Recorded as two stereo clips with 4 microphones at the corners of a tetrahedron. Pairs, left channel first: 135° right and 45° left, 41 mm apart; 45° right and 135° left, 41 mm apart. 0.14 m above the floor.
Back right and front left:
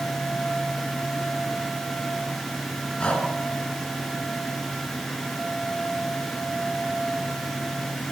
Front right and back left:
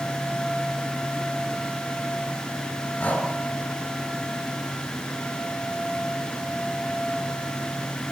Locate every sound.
3.0 s breathing: 85° right, 2 m